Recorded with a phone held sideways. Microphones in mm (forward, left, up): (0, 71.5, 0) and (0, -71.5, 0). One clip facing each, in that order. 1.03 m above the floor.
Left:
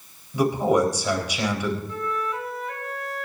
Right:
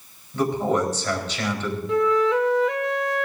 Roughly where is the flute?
Right.